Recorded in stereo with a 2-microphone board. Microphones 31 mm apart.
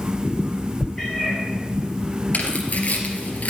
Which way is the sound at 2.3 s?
55° left (ahead or behind).